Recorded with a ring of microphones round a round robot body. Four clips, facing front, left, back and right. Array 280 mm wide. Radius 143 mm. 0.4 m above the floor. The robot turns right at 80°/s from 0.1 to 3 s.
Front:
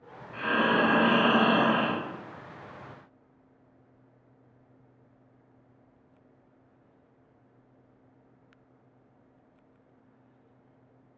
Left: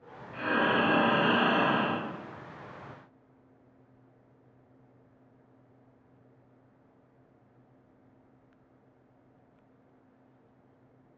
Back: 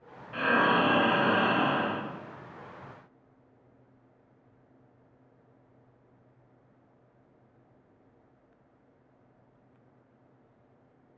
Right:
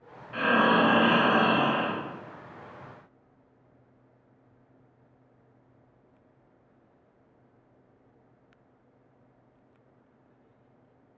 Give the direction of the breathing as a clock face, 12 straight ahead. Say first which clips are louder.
Right 5 dB, back 1 dB; 4 o'clock.